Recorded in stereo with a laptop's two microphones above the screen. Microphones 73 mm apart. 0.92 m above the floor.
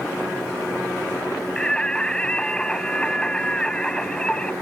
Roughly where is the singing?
Centre.